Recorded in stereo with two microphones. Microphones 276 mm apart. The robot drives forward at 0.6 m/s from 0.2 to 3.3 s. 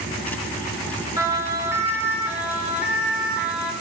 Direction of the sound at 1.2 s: 10° right (ahead or behind).